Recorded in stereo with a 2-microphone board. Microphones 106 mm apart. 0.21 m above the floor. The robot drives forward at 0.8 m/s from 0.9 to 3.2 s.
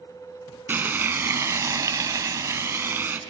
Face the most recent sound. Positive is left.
turn(degrees=-20)  # may be behind; listen again after turning